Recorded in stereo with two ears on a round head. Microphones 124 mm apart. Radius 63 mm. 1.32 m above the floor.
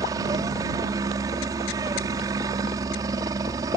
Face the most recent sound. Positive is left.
turn(degrees=-25)  # may be behind; listen again after turning